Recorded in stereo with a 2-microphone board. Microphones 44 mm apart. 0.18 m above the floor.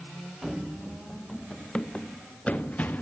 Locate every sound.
0.4 s running footsteps: 5° right (ahead or behind), 1.5 m; by 3.0 s 35° left (ahead or behind), 2.5 m